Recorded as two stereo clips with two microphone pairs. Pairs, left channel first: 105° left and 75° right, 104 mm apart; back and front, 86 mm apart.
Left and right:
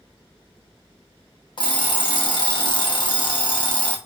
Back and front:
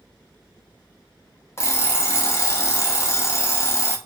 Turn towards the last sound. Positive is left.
turn(degrees=130)